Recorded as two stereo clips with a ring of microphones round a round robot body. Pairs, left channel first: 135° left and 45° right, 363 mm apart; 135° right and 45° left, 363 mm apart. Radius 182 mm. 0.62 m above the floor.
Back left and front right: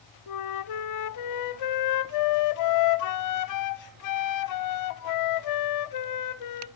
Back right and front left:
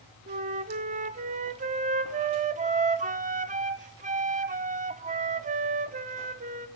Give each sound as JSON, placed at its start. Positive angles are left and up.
{"t": 0.3, "sound": "a flute", "azimuth_deg": 110, "distance_m": 0.7}